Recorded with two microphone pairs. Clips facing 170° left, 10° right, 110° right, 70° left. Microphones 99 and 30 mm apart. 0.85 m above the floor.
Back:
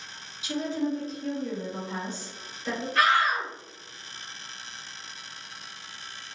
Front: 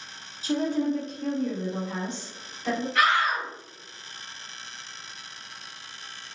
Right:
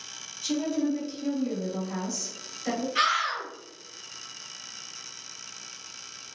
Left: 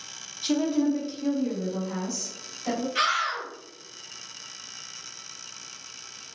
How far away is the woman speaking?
About 0.6 m.